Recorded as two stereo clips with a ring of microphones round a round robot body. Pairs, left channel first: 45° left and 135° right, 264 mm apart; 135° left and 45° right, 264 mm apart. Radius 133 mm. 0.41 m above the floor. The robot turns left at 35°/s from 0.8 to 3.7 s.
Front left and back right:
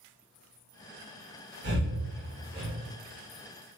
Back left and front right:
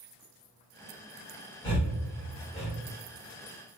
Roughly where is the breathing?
Behind right.